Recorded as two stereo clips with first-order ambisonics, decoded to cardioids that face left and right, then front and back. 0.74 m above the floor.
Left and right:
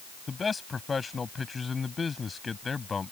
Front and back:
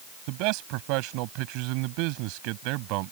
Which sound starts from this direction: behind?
A man speaking, at 0.3 s.